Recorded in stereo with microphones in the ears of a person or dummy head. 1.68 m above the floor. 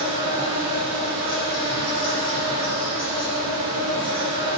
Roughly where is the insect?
Right.